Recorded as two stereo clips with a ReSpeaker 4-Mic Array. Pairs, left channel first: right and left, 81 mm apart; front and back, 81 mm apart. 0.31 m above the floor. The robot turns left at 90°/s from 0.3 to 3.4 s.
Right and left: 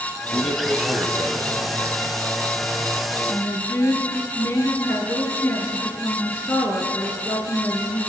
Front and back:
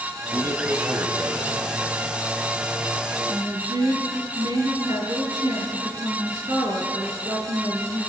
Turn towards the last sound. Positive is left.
turn(degrees=-150)